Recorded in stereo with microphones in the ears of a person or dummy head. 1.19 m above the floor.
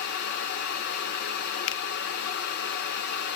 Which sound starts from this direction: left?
A finger snap, at 1.7 s.